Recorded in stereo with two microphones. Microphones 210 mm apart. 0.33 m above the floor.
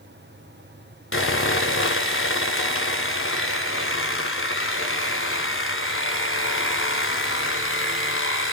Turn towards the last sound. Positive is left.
turn(degrees=75)  # may be behind; listen again after turning